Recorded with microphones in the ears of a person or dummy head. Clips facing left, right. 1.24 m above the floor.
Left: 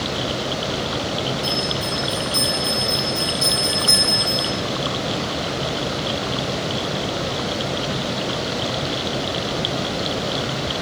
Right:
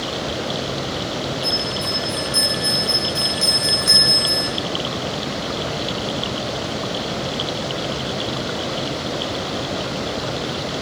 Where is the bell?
15° right (ahead or behind), 0.6 m.